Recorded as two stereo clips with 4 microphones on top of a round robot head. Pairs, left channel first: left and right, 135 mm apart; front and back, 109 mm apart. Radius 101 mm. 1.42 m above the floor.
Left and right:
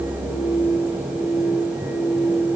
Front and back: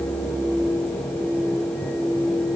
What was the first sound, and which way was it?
Only background noise.